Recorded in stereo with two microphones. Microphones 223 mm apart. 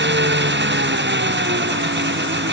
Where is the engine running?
55° right (ahead or behind).